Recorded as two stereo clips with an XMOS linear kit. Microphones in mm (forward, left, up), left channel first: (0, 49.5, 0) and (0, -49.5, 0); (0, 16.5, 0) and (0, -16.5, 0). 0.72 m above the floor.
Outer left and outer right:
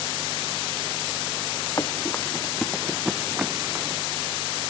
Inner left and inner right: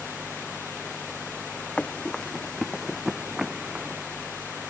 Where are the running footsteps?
35° left (ahead or behind); by 4.0 s 25° right (ahead or behind).